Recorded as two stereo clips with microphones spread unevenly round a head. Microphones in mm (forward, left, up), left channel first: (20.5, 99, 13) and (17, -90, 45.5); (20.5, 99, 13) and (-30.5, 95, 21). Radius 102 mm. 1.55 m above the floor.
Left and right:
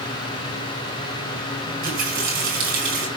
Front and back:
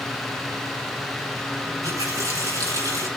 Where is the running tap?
135° right, 6 m.